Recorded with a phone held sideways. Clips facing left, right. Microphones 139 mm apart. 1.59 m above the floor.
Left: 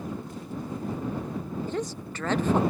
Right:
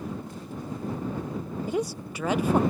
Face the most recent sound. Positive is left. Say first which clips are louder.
# right 3 dB
turn(degrees=-10)  # may be behind; listen again after turning